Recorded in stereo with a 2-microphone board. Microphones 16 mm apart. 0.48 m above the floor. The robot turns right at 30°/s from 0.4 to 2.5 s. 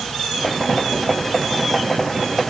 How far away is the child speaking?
I don't hear a child speaking.